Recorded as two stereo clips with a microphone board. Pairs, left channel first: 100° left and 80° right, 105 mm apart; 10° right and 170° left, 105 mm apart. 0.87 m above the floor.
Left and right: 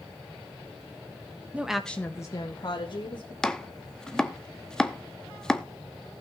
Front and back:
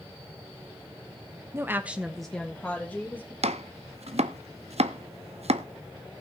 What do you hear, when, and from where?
1.5 s a woman speaking: 145° right, 0.8 m; by 3.3 s 60° left, 1.9 m
3.4 s chopping: straight behind, 0.6 m